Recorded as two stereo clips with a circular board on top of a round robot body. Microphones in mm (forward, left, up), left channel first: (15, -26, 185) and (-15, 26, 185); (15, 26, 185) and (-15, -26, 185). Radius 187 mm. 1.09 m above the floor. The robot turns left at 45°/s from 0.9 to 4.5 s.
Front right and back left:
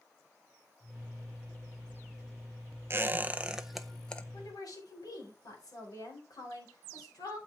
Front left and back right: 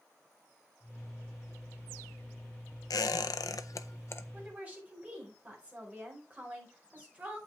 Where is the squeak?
70° left, 0.6 m; by 4.2 s 10° left, 0.6 m.